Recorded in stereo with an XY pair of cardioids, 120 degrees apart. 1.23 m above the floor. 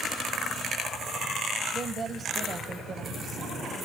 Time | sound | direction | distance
1.7 | a woman speaking | 30° right | 0.9 m